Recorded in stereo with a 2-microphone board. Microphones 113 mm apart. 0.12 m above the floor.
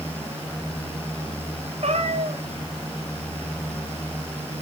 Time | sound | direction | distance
1.8 | a cat meowing | 70° right (ahead or behind) | 2 m